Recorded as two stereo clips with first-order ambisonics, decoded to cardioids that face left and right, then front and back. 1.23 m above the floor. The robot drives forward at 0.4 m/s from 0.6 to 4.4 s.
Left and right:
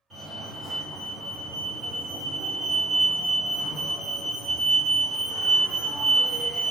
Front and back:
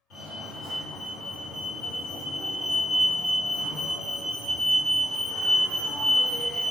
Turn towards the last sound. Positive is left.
turn(degrees=-130)